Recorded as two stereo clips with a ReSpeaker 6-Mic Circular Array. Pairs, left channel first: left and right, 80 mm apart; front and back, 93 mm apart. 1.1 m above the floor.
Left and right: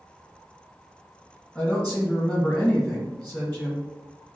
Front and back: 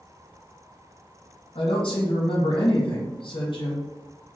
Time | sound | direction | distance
1.6 | a woman speaking | 20° left | 0.9 m